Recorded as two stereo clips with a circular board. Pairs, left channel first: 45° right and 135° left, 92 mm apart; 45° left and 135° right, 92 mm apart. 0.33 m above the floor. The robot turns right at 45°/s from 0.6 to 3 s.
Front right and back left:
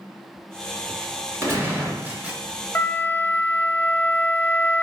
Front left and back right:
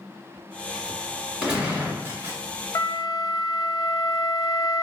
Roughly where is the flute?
Ahead.